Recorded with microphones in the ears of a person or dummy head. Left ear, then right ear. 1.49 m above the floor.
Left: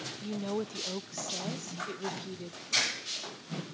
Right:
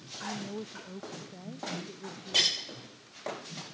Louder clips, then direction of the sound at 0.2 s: Left 2 dB; 80° left.